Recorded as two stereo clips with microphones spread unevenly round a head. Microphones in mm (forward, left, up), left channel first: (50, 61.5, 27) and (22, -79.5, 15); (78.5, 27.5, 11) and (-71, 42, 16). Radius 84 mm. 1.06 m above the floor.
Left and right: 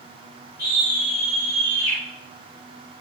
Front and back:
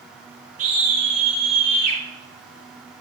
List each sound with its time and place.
0.6 s a scream: 140° left, 5.5 m; by 2.0 s 135° left, 4.5 m